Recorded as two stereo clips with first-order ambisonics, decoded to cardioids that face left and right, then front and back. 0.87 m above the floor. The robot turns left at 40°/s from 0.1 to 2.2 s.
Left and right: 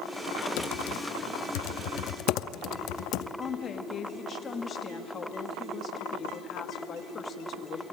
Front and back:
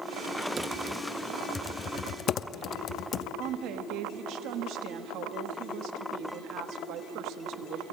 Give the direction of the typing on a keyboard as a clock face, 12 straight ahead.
8 o'clock.